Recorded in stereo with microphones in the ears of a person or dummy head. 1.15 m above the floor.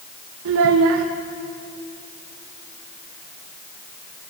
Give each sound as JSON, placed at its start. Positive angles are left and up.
{"t": 0.5, "sound": "a child speaking", "side_deg": -70, "distance_m": 0.6}